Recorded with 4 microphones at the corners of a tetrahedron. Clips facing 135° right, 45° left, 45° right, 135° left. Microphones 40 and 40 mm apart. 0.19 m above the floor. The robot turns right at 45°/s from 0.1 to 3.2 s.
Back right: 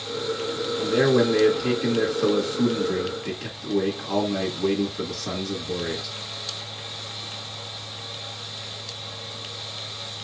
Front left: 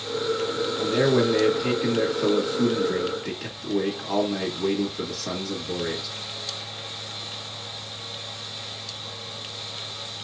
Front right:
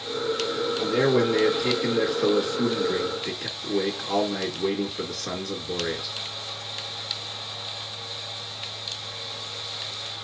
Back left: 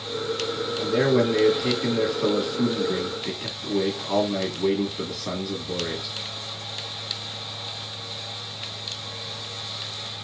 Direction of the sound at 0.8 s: 5° left.